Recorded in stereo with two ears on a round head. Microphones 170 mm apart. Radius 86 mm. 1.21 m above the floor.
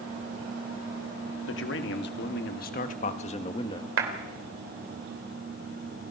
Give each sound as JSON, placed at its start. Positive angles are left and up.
{"t": 1.5, "sound": "a man speaking", "side_deg": 65, "distance_m": 1.8}
{"t": 4.0, "sound": "a clap", "side_deg": -80, "distance_m": 3.5}